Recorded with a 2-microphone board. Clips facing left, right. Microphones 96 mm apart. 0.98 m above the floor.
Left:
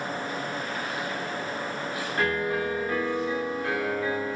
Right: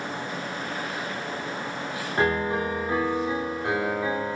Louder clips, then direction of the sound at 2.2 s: Right 3 dB; 25° right (ahead or behind).